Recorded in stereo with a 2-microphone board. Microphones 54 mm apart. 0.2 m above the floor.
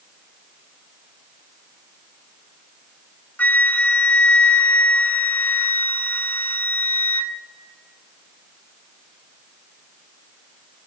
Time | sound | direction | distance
3.4 | a flute | 30° left (ahead or behind) | 0.5 m